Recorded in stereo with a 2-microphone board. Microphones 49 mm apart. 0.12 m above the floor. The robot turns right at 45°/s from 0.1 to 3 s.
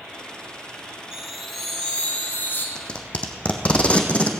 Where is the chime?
15° right, 2 m; by 2.6 s 55° left, 2 m.